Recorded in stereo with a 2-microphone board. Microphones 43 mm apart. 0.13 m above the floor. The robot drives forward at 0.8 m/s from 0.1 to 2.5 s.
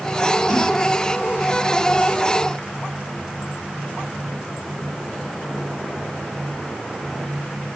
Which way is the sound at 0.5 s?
30° right (ahead or behind).